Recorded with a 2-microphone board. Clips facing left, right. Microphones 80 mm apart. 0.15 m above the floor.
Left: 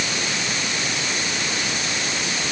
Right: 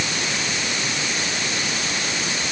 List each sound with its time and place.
Only background noise.